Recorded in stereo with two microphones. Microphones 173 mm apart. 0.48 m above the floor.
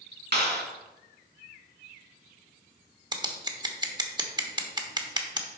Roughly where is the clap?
Right.